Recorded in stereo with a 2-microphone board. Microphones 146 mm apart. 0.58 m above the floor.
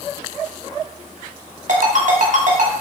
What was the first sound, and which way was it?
A ringtone, 60° right (ahead or behind).